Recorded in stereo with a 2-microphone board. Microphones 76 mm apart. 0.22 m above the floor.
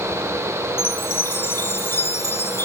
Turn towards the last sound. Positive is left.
turn(degrees=30)  # may be behind; listen again after turning